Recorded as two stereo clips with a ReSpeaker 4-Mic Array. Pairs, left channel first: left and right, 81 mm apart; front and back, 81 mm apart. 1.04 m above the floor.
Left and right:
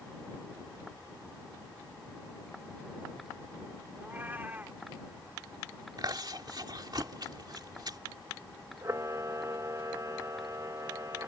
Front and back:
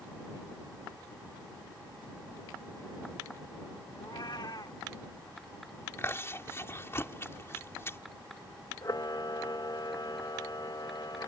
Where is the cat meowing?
25° right.